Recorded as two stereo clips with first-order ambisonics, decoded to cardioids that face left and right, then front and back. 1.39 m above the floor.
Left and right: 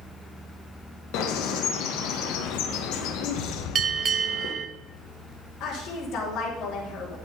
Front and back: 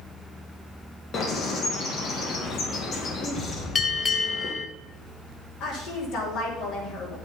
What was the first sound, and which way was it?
A bird, 60° left.